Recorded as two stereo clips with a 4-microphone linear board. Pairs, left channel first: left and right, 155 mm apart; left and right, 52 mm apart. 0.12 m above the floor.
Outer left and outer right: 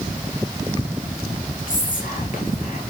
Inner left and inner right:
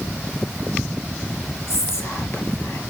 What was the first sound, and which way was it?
Whispering, 55° left (ahead or behind).